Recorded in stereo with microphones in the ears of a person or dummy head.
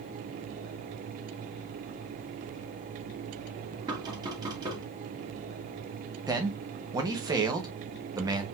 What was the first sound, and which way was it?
Knocking, 30° right (ahead or behind).